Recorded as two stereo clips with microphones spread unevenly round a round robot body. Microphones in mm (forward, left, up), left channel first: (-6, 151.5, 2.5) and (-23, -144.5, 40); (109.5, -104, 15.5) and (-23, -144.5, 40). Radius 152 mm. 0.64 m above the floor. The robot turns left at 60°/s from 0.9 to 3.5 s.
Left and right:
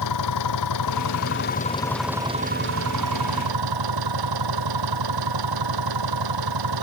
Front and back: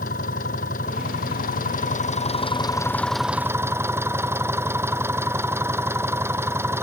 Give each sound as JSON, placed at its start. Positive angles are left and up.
{"t": 0.0, "sound": "an engine running", "azimuth_deg": 65}